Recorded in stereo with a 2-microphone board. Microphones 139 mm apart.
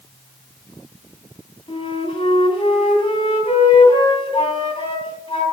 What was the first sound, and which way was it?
A flute, 40° left (ahead or behind).